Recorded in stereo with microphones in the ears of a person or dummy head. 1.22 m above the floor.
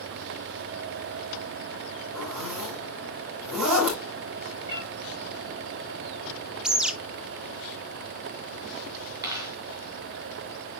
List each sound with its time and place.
2.1 s a zipper: centre (ahead or behind), 6 m
4.7 s a cat meowing: 20° right (ahead or behind), 5.5 m
6.6 s a bird: 10° right (ahead or behind), 0.5 m
9.2 s a dropped coin: 15° right (ahead or behind), 5 m